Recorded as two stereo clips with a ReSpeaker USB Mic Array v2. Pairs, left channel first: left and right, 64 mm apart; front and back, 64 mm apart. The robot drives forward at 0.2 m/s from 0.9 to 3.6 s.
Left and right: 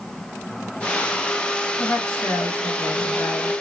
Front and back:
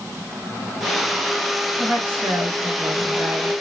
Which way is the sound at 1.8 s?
130° left.